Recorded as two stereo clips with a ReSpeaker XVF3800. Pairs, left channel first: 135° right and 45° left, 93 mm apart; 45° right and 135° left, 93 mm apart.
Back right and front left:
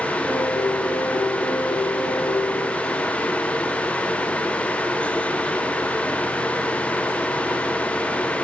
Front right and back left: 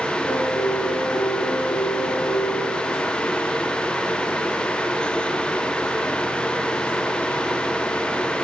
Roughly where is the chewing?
No chewing in this recording.